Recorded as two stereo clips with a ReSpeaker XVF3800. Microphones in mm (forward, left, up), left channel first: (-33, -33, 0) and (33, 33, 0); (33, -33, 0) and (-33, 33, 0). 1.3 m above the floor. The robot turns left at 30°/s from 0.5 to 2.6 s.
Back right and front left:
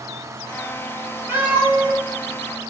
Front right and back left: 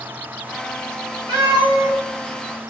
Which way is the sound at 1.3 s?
110° left.